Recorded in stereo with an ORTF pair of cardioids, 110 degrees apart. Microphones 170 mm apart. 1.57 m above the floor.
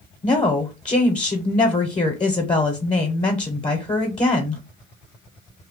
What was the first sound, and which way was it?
A woman speaking, 25° left.